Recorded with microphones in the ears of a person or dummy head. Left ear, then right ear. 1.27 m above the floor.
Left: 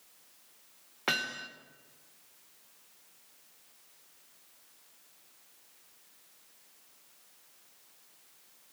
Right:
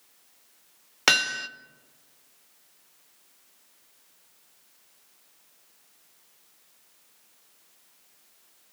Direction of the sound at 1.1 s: 75° right (ahead or behind).